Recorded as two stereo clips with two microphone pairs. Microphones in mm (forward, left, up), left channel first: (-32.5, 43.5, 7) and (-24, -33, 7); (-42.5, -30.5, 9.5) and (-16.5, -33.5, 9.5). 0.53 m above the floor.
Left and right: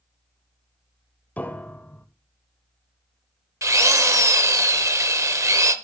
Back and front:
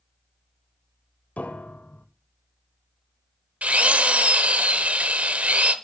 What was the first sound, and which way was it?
A piano, 165° left.